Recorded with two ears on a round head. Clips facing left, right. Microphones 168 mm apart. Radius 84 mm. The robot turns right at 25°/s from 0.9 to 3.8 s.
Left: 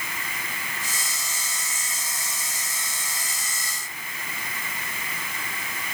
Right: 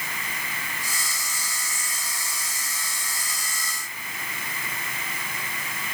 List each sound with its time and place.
Only background noise.